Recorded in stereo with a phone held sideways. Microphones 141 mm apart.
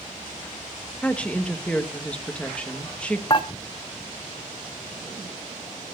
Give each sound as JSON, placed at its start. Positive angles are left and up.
{"t": 1.0, "sound": "a woman speaking", "side_deg": 10, "distance_m": 2.0}
{"t": 3.3, "sound": "dishes clattering", "side_deg": 35, "distance_m": 1.3}